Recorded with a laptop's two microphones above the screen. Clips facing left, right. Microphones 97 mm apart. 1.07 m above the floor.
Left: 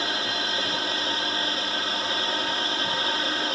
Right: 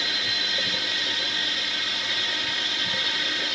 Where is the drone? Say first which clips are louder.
Left 4 dB; 40° left (ahead or behind).